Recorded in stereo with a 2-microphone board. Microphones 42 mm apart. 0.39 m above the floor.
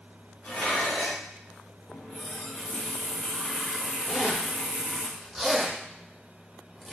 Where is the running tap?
15° left (ahead or behind), 0.5 m.